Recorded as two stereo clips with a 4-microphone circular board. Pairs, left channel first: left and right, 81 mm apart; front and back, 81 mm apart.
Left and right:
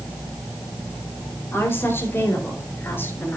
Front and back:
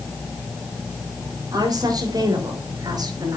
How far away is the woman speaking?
About 5.5 m.